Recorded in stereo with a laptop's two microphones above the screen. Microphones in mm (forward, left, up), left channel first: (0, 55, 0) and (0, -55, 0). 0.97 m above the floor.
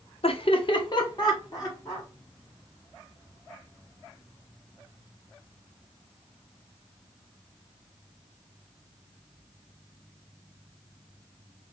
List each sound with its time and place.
0.2 s laughter: 55° left (ahead or behind), 0.7 m; by 2.1 s 30° left (ahead or behind), 2 m